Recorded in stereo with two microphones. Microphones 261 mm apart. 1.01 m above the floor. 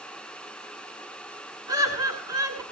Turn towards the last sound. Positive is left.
turn(degrees=-15)  # may be behind; listen again after turning